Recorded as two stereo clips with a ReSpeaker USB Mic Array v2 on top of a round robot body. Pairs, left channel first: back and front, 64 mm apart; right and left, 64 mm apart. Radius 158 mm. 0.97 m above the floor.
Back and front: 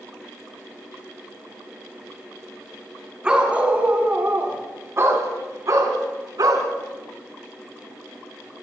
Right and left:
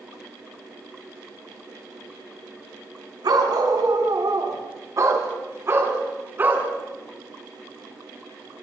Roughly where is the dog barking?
Left.